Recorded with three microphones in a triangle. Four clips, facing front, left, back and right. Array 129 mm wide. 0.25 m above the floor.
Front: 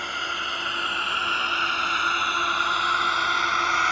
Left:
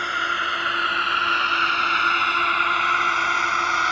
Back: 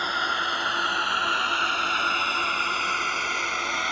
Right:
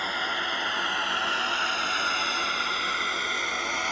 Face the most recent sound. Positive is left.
turn(degrees=55)